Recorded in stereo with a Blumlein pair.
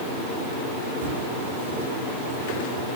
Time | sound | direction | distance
1.0 | footsteps | 60° right | 5 m